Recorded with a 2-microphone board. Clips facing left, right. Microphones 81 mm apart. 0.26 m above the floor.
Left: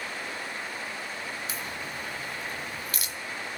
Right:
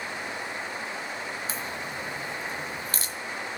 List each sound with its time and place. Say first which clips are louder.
1.5 s a crack: right 2 dB; 35° right (ahead or behind), 1.4 m